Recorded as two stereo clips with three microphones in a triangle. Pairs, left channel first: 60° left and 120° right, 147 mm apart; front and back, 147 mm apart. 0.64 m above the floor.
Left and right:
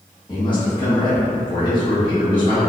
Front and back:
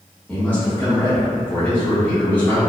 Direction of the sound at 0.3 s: 70° left.